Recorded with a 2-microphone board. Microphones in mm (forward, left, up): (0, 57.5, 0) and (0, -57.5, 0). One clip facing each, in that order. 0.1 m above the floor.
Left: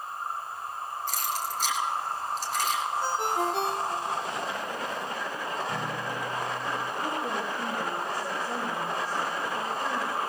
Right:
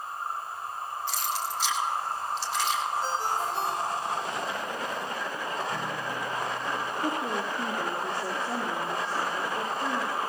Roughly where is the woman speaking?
Right.